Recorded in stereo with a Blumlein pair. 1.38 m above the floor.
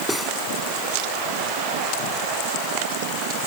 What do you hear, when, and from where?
0.1 s cutlery clinking: straight ahead